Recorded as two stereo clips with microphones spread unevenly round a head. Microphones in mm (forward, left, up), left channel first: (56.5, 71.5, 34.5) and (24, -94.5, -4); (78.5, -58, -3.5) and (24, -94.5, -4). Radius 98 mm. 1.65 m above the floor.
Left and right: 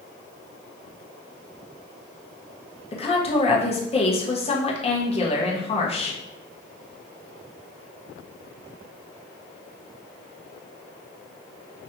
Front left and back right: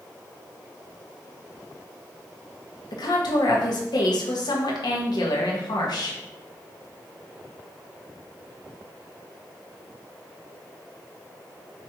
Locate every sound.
2.9 s a woman speaking: 25° left, 1.2 m